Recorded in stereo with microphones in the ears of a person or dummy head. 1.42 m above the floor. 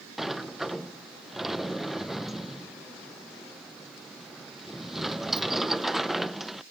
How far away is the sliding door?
About 0.6 m.